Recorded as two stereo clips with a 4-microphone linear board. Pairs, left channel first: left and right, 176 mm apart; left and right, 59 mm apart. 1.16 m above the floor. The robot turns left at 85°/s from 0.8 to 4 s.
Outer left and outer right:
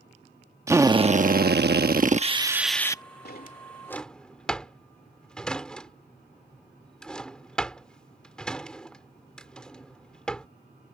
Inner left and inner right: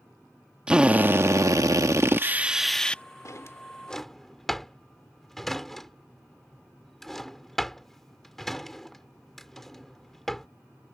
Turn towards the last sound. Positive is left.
turn(degrees=5)  # may be behind; listen again after turning